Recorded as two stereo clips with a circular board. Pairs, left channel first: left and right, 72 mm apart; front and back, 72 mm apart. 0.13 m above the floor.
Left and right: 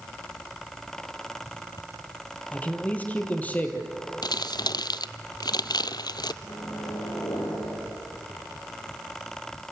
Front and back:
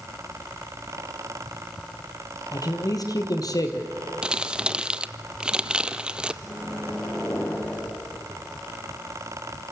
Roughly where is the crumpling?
Left.